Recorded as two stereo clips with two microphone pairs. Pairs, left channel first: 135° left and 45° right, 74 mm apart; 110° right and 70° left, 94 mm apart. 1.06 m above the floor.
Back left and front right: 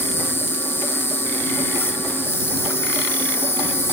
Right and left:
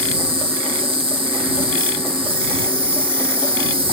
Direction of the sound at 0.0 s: 85° left.